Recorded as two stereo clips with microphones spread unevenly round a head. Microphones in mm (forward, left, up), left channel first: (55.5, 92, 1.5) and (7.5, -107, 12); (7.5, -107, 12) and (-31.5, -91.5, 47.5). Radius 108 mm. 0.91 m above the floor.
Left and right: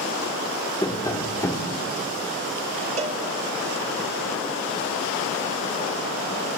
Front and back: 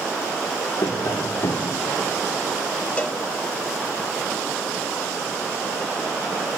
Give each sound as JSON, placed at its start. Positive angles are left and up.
{"t": 0.8, "sound": "tapping", "azimuth_deg": 0, "distance_m": 1.8}
{"t": 3.0, "sound": "a cowbell", "azimuth_deg": -45, "distance_m": 2.0}